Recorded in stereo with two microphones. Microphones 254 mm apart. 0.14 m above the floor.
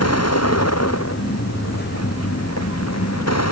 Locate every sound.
0.0 s a vehicle: 75° left (ahead or behind); by 3.5 s 80° left